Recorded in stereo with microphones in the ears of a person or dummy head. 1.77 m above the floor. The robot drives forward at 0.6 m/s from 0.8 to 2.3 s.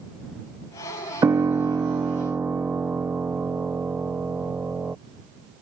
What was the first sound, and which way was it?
A piano, 10° right (ahead or behind).